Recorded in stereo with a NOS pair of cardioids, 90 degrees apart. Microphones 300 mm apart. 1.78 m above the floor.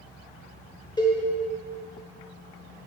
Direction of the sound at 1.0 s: 15° left.